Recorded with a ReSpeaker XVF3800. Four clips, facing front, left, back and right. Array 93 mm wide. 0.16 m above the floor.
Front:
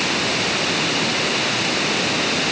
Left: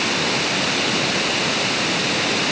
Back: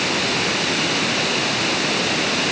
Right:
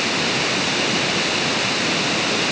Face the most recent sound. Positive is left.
No sound to turn to.